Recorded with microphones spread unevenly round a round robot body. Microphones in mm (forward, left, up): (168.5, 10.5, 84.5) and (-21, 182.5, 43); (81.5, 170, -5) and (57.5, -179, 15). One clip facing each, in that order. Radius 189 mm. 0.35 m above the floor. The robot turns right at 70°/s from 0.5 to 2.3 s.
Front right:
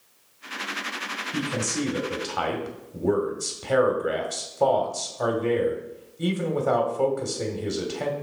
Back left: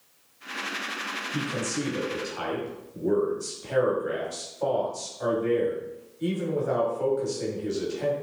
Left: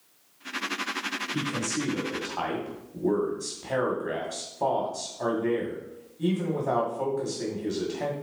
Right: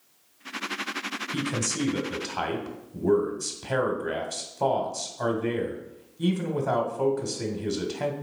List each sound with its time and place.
1.3 s a man speaking: 105° right, 2 m; by 8.1 s 35° right, 2 m